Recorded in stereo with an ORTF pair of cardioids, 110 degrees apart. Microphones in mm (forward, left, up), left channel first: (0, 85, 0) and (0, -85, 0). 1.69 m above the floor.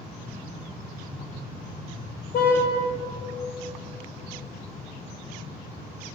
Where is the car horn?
65° left, 4 m.